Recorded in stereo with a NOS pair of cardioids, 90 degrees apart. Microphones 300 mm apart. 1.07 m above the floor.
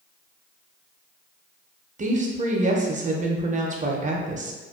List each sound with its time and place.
2.0 s a woman speaking: 25° right, 0.6 m